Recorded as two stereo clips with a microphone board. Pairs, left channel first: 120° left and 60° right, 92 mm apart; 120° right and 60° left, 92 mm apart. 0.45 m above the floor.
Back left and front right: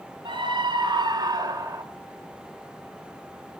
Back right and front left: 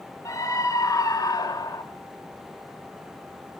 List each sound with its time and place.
0.2 s a scream: 70° right, 2.5 m; by 1.8 s 100° right, 1.9 m